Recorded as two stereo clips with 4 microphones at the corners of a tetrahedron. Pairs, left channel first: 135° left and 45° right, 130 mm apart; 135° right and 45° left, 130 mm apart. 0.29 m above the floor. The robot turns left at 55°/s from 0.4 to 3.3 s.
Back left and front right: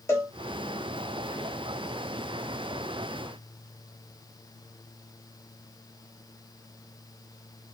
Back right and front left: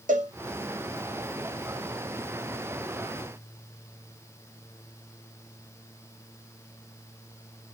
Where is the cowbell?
65° left, 3 m.